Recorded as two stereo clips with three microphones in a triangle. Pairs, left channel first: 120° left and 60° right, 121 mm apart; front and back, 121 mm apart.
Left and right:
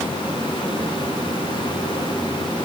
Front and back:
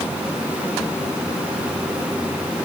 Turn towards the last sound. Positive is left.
No sound to turn to.